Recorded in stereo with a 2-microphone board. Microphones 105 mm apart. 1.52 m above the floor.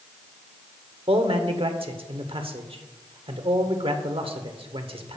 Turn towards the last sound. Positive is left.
turn(degrees=-60)  # may be behind; listen again after turning